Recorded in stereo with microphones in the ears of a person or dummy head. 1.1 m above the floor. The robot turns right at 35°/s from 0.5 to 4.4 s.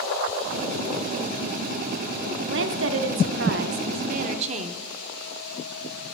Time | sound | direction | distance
2.4 | a woman speaking | 110° right | 0.5 m